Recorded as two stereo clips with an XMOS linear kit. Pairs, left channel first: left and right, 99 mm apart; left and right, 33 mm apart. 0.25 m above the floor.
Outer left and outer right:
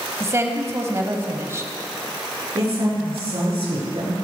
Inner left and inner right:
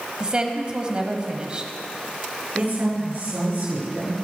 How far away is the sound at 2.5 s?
About 5 m.